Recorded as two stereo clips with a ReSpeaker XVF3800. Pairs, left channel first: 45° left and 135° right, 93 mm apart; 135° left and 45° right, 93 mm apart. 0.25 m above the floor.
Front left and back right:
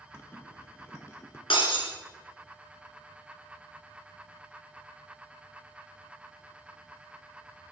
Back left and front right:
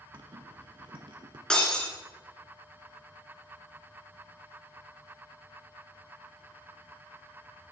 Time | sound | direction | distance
0.1 | a zipper | 20° right | 1.1 m
1.5 | breaking glass | 50° left | 1.9 m